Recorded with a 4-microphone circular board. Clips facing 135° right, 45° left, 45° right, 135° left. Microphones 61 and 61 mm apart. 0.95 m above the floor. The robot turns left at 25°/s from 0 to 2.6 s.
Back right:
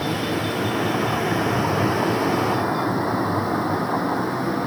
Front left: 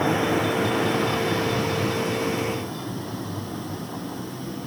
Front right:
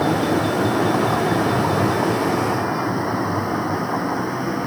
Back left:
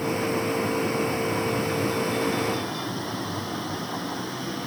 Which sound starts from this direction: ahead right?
A vehicle, at 0.0 s.